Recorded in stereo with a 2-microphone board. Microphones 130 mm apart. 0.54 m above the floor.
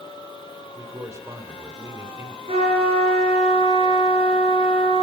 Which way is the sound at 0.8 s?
25° right (ahead or behind).